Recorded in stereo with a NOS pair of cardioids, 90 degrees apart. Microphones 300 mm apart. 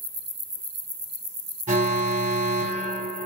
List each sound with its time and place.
1.7 s an alarm: 25° right, 2.5 m